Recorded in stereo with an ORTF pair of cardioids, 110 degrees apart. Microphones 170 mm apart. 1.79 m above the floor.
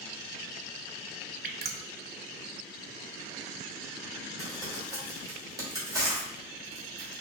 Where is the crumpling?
20° right, 2.5 m.